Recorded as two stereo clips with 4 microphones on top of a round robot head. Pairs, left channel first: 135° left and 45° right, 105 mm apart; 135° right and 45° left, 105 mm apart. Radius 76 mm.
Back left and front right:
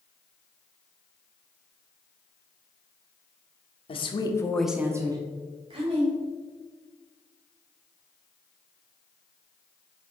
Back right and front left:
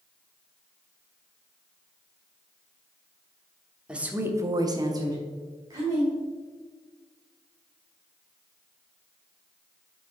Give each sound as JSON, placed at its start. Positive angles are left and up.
{"t": 3.9, "sound": "a woman speaking", "azimuth_deg": 125, "distance_m": 1.1}